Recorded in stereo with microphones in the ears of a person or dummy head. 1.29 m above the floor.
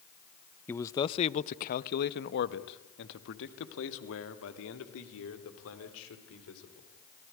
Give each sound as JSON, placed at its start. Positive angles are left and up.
{"t": 0.7, "sound": "a man speaking", "side_deg": 15, "distance_m": 0.7}